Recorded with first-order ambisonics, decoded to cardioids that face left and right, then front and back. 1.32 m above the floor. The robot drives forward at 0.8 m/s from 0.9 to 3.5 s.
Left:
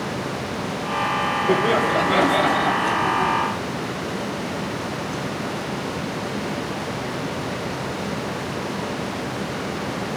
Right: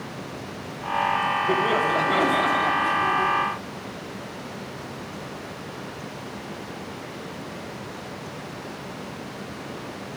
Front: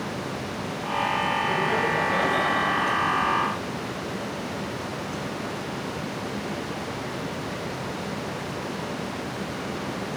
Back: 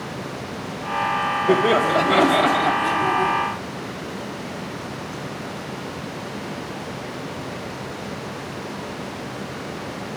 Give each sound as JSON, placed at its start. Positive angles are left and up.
{"t": 1.5, "sound": "laughter", "azimuth_deg": 165, "distance_m": 3.0}